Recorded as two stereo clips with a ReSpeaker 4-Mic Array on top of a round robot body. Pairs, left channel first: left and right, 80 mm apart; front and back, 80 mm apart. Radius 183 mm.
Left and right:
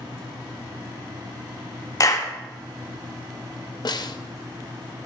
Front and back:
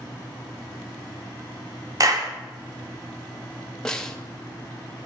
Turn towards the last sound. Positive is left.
turn(degrees=80)